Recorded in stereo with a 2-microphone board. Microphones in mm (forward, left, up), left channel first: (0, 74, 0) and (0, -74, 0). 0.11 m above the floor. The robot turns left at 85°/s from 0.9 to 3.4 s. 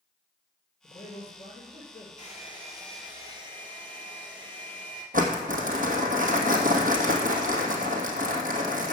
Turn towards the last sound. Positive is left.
turn(degrees=-65)  # may be behind; listen again after turning